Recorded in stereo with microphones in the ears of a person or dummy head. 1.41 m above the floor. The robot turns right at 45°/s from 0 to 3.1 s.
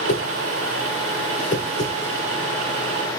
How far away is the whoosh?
About 2 m.